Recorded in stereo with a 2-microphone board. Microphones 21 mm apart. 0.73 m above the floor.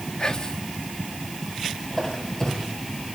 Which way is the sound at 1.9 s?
25° left (ahead or behind).